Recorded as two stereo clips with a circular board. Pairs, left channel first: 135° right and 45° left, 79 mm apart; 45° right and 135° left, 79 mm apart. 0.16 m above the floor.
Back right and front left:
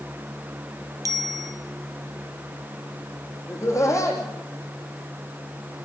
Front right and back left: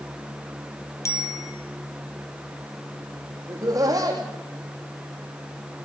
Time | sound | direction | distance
1.1 | a bicycle bell | 5° left | 3 m
3.5 | laughter | 175° left | 6.5 m